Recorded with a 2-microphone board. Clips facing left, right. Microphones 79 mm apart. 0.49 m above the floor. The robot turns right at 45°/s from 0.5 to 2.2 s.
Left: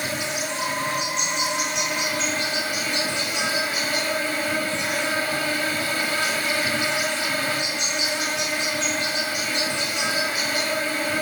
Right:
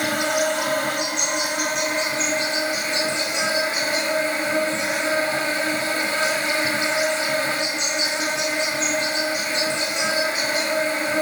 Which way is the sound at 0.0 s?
100° right.